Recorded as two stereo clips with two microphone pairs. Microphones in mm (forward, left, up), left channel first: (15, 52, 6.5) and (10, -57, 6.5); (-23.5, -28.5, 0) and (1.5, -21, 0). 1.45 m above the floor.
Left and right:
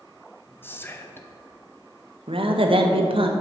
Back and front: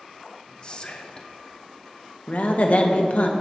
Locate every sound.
0.6 s whispering: 150° left, 0.6 m
2.3 s a woman speaking: 130° right, 0.8 m